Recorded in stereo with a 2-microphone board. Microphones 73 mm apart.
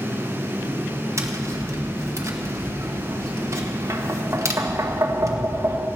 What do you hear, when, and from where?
1.2 s tapping: 40° right (ahead or behind), 1.3 m